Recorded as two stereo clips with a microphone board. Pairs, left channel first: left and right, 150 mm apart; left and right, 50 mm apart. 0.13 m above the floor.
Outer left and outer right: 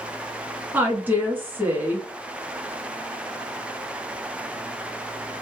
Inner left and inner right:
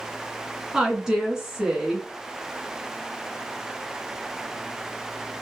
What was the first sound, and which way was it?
A woman speaking, 15° right (ahead or behind).